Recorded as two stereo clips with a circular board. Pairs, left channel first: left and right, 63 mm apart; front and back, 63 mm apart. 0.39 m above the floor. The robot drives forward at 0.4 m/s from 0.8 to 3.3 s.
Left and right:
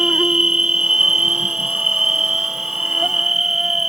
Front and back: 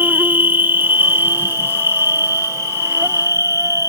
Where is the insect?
165° right; by 3.9 s 175° right.